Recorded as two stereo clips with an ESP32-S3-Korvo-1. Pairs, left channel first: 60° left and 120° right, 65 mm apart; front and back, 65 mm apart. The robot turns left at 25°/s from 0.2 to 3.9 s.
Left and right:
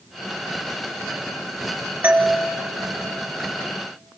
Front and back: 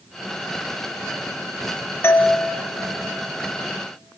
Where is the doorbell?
55° right, 0.9 m; by 2.4 s 65° right, 0.9 m.